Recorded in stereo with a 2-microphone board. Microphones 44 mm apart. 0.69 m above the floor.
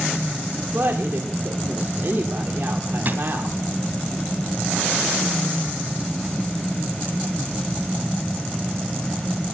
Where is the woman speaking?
60° right (ahead or behind), 2 m.